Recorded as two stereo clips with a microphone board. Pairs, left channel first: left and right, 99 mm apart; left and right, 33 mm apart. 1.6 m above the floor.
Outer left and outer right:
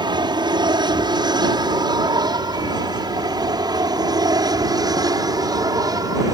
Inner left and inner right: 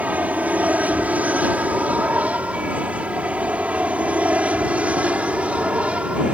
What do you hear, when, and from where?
0.0 s an aircraft: 50° right (ahead or behind); by 6.3 s 40° right (ahead or behind)